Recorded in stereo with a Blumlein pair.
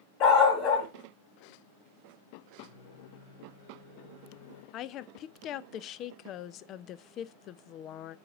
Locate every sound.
0.2 s a dog barking: 40° left, 3 m
2.6 s a microwave: 65° left, 3.5 m
4.7 s a woman speaking: 35° left, 0.5 m